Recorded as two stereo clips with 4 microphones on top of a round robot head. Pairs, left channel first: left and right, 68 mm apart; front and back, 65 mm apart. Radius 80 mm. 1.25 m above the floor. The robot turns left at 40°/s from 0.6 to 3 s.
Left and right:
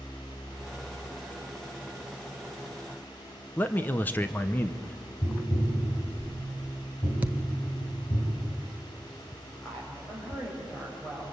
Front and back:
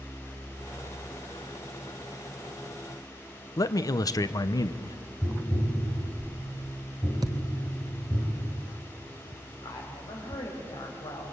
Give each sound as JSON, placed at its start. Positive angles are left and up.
{"t": 3.6, "sound": "a man speaking", "azimuth_deg": 25, "distance_m": 0.9}
{"t": 5.2, "sound": "tapping", "azimuth_deg": 65, "distance_m": 5.0}
{"t": 7.2, "sound": "a thud", "azimuth_deg": -145, "distance_m": 0.6}
{"t": 9.6, "sound": "a woman speaking", "azimuth_deg": 15, "distance_m": 6.0}